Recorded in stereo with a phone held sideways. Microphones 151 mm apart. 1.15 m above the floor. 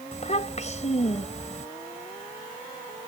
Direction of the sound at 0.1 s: 45° left (ahead or behind).